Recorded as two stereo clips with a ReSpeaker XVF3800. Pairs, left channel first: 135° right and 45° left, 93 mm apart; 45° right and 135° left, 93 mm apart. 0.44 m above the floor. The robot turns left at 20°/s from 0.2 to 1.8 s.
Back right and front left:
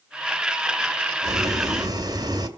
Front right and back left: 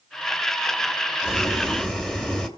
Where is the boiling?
45° left, 1.7 m; by 2.5 s 35° left, 1.7 m.